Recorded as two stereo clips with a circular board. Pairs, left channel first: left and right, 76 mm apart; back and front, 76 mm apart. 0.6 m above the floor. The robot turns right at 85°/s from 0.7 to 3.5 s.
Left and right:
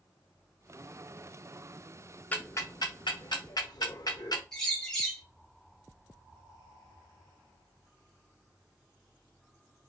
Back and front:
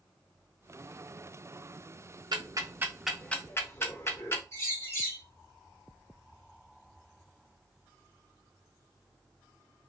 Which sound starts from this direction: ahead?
Ticking, at 2.3 s.